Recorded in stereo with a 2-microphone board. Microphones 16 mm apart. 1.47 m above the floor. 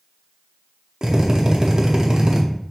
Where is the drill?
35° right (ahead or behind), 0.7 m.